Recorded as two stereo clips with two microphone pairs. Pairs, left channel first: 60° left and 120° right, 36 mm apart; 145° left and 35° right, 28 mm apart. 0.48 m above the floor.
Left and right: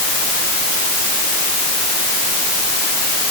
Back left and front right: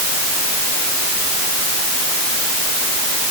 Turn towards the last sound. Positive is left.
No sound to turn to.